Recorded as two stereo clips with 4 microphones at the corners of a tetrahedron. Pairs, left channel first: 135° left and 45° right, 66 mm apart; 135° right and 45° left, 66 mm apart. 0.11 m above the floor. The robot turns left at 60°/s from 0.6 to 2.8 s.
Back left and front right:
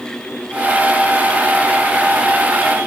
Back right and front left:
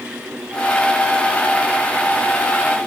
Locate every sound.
Only background noise.